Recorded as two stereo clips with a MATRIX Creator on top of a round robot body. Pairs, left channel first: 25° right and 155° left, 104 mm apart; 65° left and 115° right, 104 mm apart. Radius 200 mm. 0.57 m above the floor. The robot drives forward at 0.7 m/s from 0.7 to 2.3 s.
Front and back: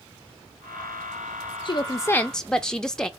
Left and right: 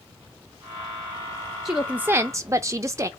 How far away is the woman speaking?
About 0.8 m.